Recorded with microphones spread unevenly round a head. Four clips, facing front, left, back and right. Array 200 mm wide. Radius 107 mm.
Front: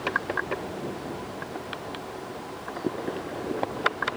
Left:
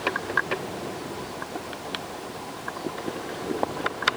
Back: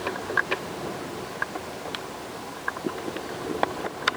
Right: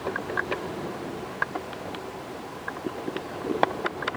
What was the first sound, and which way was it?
Only background noise.